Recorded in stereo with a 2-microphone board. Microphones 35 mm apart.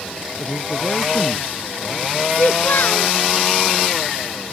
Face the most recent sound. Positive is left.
turn(degrees=65)  # may be behind; listen again after turning